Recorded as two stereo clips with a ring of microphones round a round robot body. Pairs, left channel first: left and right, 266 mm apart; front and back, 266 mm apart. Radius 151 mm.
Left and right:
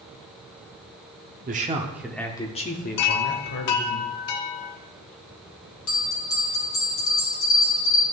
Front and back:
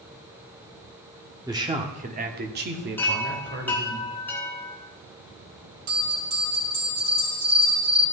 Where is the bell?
120° left, 3.5 m.